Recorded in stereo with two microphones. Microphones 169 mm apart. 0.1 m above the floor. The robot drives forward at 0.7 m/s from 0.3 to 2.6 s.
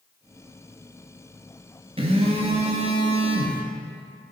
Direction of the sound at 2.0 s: 35° right (ahead or behind).